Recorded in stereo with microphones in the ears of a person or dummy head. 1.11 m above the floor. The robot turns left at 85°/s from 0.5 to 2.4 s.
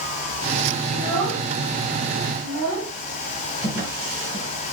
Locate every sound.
0.9 s a child speaking: 30° left (ahead or behind), 4.5 m; by 2.9 s 85° right, 4.5 m
3.6 s a drawer: 40° right (ahead or behind), 5 m